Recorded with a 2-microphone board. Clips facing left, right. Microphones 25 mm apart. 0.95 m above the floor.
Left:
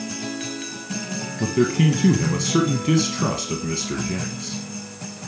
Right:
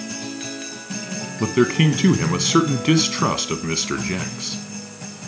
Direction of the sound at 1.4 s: 30° right (ahead or behind).